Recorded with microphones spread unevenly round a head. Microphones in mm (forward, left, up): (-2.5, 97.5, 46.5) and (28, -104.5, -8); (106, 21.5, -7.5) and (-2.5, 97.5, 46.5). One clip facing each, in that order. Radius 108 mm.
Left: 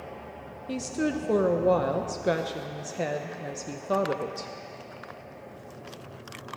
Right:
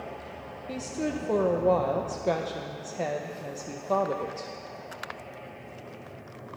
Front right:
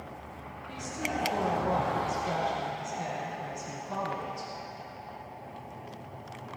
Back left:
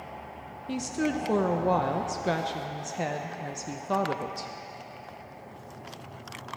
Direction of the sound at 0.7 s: Straight behind.